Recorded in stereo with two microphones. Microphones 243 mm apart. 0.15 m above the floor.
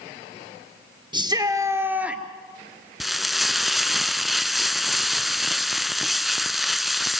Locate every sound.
1.1 s a shout: 20° right (ahead or behind), 2.5 m; by 2.2 s centre (ahead or behind), 2 m
3.0 s frying: centre (ahead or behind), 0.5 m